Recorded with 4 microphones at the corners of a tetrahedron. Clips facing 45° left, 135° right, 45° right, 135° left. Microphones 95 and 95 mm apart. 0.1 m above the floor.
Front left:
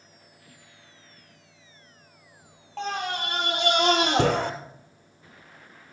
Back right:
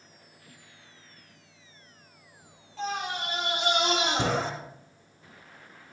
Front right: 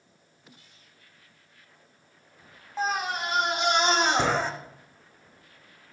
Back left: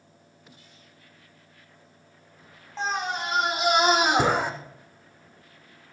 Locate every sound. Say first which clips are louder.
2.8 s a scream: front left 2 dB, even; 40° left, 3 m; by 4.5 s 60° left, 3 m